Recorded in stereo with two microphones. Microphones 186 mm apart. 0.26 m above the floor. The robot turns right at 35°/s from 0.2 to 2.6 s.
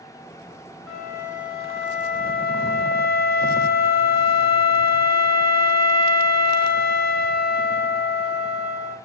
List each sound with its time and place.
0.9 s a flute: 5° left, 0.7 m; by 9.0 s 65° left, 0.7 m